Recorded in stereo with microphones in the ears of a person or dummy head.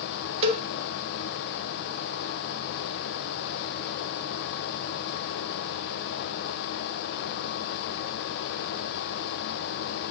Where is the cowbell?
35° right (ahead or behind), 1.5 m.